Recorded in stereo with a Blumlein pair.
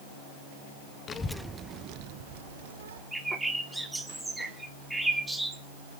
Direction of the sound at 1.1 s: 25° left.